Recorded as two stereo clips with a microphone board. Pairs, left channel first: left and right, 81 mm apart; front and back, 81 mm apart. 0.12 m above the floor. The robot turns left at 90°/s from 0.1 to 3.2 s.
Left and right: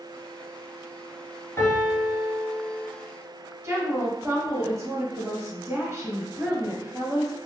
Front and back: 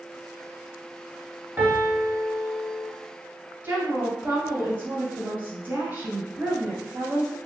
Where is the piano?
125° left, 1.2 m; by 2.9 s 5° left, 1.2 m.